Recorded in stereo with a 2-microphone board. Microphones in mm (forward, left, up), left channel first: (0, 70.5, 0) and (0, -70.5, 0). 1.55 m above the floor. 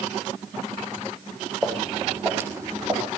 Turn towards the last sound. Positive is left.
turn(degrees=-35)  # may be behind; listen again after turning